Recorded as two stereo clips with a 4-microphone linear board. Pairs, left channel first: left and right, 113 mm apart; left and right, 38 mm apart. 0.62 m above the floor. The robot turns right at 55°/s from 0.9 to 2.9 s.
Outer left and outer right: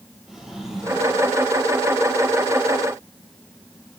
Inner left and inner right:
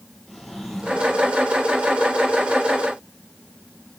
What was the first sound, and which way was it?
A drawer, 5° right (ahead or behind).